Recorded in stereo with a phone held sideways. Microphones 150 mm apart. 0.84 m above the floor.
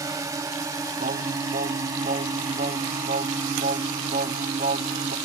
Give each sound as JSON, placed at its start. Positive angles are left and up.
{"t": 0.0, "sound": "a drone", "side_deg": -20}
{"t": 1.0, "sound": "singing", "side_deg": -75}